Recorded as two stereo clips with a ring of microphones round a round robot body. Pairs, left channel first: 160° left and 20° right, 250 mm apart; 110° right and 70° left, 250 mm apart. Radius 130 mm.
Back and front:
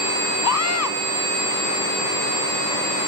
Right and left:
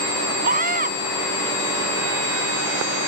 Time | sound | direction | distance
0.4 | a scream | 130° left | ?